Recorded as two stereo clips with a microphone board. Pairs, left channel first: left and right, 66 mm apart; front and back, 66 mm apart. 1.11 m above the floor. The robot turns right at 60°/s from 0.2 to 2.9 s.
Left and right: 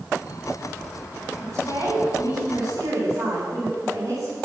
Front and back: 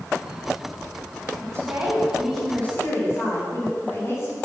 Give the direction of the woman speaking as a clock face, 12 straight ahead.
5 o'clock.